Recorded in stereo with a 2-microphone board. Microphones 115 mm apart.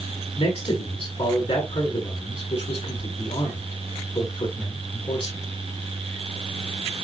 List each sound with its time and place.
0.4 s a man speaking: 50° left (ahead or behind), 6.5 m